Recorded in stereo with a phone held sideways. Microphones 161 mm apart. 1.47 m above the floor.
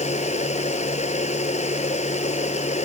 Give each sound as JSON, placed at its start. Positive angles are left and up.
{"t": 0.0, "sound": "a machine running", "side_deg": 45}